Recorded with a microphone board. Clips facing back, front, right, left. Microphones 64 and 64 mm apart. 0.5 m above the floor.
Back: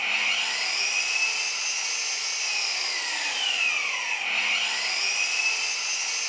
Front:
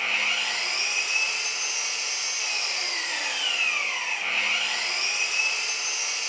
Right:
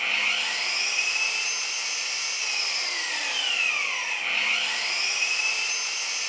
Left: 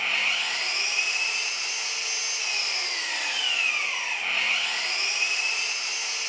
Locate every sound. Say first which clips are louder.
0.0 s an engine running: front 1 dB, even; straight ahead, 1.1 m